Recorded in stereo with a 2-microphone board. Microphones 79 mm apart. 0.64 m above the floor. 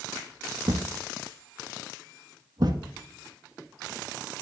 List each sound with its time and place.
0.7 s a thud: 60° right (ahead or behind), 0.9 m